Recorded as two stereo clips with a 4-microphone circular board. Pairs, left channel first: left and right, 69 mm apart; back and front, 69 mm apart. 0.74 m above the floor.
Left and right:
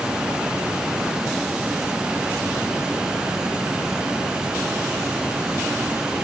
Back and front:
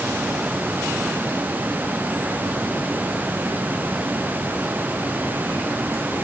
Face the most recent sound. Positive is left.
No sound to turn to.